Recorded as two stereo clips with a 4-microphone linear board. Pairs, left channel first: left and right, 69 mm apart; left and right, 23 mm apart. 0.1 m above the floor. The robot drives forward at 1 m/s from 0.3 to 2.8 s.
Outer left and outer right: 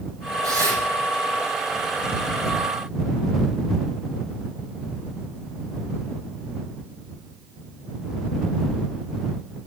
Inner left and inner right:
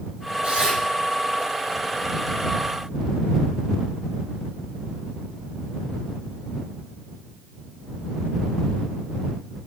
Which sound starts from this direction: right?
Tearing paper, at 0.4 s.